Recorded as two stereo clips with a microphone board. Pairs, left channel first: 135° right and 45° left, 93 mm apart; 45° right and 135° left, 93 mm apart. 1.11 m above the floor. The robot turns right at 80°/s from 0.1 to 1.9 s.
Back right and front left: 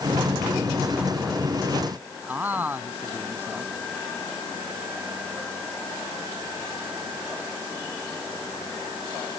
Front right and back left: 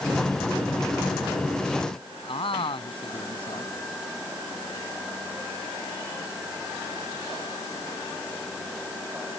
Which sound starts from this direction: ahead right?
A man speaking, at 2.3 s.